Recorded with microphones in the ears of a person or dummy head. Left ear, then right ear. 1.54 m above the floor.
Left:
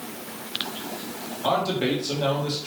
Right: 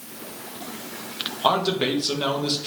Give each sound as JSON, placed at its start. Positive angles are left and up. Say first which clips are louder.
{"t": 1.4, "sound": "a man speaking", "louder": "right 2 dB", "side_deg": -45, "distance_m": 1.0}